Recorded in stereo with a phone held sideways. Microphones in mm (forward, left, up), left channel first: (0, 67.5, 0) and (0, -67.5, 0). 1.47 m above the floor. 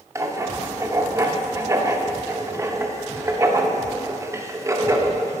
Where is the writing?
25° right (ahead or behind), 0.8 m.